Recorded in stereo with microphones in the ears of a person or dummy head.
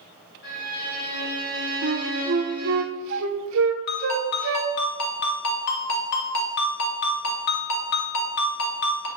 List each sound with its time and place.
0.4 s a violin: 60° left (ahead or behind), 2.5 m
1.8 s a flute: 75° right (ahead or behind), 0.7 m
3.9 s a ringtone: 55° left (ahead or behind), 1.6 m